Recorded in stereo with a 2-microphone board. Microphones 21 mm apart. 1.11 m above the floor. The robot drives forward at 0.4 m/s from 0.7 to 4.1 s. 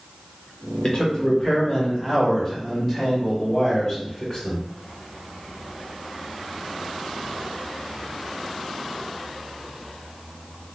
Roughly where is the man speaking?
Left.